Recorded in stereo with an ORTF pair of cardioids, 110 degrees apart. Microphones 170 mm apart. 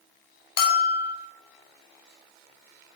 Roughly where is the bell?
Ahead left.